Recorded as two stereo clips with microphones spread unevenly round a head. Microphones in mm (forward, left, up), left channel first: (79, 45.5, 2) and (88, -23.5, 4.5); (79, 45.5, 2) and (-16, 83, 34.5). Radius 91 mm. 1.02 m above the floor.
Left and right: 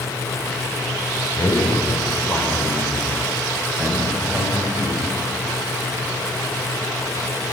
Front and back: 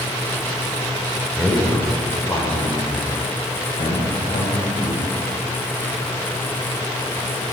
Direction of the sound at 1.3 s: 60° left.